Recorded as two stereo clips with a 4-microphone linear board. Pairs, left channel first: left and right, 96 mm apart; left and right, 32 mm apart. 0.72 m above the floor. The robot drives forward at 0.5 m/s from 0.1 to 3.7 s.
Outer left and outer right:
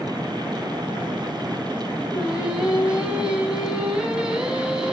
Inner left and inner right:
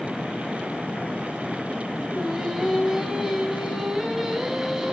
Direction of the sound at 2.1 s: 10° right (ahead or behind).